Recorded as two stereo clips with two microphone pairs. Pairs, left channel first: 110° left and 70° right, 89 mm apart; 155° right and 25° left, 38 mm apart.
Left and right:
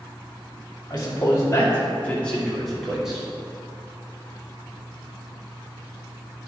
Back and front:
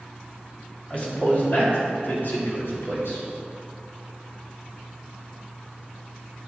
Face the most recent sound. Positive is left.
turn(degrees=-150)